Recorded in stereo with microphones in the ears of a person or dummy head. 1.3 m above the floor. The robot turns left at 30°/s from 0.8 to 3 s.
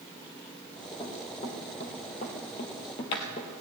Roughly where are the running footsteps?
Left.